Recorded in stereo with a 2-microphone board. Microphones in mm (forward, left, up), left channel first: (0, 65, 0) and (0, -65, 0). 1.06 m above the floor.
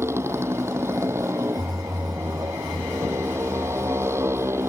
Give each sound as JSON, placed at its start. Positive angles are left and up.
{"t": 0.0, "sound": "a motorcycle", "side_deg": -20}